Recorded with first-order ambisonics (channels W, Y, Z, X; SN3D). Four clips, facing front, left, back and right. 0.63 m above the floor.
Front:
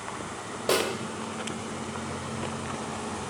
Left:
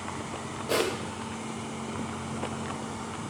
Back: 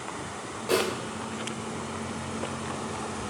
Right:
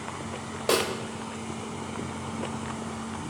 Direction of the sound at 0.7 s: 60° right.